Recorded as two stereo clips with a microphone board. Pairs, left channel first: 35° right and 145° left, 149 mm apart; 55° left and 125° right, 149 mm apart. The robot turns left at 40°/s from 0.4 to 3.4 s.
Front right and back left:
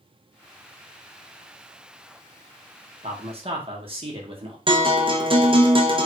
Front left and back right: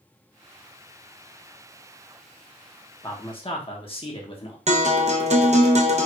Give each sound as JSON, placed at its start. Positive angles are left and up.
{"t": 3.0, "sound": "a man speaking", "azimuth_deg": 115, "distance_m": 1.2}
{"t": 4.7, "sound": "a guitar", "azimuth_deg": -160, "distance_m": 0.7}